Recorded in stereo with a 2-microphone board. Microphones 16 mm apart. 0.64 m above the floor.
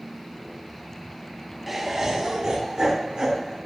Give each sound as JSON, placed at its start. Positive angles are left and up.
{"t": 1.7, "sound": "laughter", "side_deg": -5, "distance_m": 0.8}